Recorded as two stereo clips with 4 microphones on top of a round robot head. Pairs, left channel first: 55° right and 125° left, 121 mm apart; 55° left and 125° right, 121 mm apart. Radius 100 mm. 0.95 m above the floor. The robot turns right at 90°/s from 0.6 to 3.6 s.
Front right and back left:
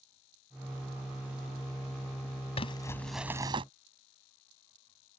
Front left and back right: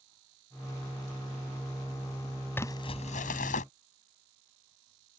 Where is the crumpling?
15° right; by 3.6 s 75° left.